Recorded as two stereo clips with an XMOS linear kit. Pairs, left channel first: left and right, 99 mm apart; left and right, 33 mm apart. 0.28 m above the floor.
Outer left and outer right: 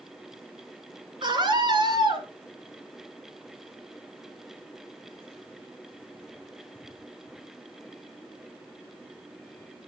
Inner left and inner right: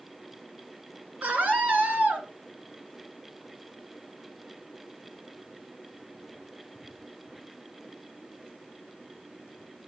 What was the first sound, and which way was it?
A scream, 55° right (ahead or behind).